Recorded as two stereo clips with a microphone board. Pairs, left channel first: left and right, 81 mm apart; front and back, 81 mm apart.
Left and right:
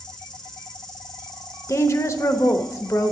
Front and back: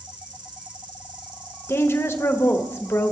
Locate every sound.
0.0 s an insect: 175° left, 2 m
1.7 s a woman speaking: 50° left, 0.9 m